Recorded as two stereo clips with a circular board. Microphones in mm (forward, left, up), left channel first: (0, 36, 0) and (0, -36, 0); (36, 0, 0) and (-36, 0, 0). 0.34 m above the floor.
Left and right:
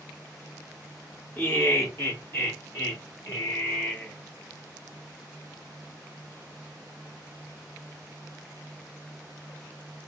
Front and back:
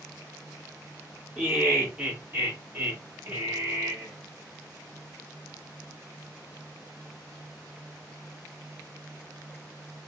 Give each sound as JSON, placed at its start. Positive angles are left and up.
{"t": 1.4, "sound": "laughter", "azimuth_deg": 110, "distance_m": 1.7}